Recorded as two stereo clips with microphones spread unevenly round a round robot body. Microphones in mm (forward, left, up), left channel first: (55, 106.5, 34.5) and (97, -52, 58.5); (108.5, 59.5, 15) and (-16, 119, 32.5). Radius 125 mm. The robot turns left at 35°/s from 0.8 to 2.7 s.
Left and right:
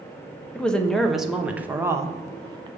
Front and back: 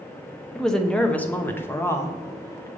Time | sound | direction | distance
0.6 | a woman speaking | 40° left | 0.9 m